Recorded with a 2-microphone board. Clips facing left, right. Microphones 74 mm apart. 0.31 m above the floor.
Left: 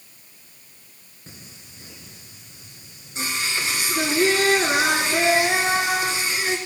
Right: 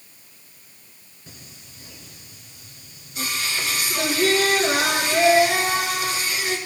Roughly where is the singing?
Left.